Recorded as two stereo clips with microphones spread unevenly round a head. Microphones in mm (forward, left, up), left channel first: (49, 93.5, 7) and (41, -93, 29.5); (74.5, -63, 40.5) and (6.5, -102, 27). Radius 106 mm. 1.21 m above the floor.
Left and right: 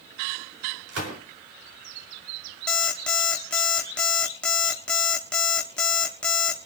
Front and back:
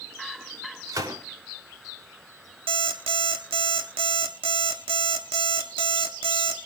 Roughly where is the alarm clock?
Behind.